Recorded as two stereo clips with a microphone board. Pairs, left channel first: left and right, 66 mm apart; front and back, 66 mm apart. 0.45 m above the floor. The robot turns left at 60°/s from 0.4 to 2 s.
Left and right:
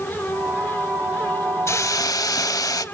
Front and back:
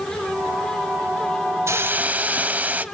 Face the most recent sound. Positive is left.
turn(degrees=115)